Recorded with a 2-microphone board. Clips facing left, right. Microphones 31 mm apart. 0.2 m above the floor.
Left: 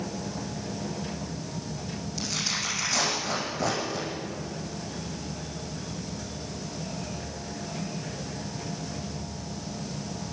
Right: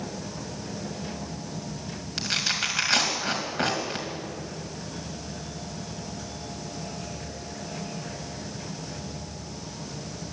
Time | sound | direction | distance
2.2 | tearing paper | 55° right (ahead or behind) | 2.5 m